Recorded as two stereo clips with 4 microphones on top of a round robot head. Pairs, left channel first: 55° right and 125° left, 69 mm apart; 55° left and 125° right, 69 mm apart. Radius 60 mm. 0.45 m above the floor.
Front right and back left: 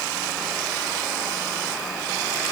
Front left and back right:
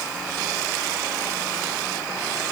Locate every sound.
Only background noise.